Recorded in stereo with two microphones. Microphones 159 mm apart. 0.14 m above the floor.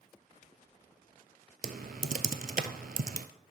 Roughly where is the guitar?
I don't hear a guitar.